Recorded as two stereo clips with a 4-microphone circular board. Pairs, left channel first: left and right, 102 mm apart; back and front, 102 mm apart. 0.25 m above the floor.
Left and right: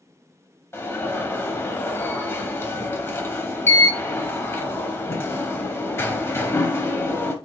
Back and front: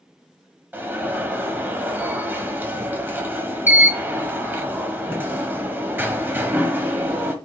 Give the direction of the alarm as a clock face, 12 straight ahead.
10 o'clock.